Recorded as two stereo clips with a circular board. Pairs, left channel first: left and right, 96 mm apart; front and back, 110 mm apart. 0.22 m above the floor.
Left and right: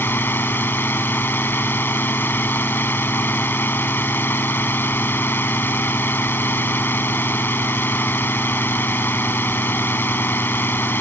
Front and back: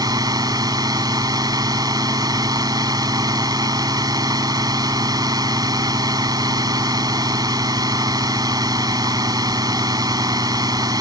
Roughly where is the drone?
Behind left.